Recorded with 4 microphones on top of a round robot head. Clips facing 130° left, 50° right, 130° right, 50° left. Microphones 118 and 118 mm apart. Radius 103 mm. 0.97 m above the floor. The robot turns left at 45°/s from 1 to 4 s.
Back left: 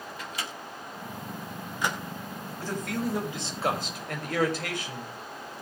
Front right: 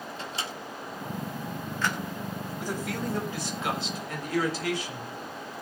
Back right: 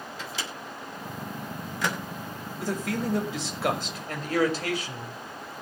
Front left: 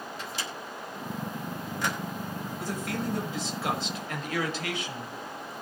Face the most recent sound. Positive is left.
turn(degrees=175)